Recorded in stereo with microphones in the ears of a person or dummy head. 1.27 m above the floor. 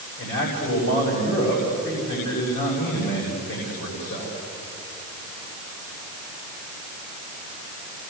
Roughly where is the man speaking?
Left.